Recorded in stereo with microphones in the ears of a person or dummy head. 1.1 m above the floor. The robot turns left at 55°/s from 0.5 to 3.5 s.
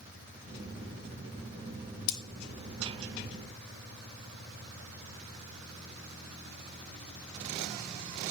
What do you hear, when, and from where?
2.1 s cutlery clinking: 65° left (ahead or behind), 0.7 m